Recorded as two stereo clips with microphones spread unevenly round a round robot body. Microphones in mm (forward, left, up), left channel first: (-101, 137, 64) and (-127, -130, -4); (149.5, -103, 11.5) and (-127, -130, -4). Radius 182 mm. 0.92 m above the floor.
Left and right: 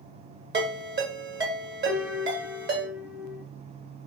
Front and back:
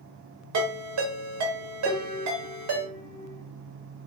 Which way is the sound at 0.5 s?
150° right.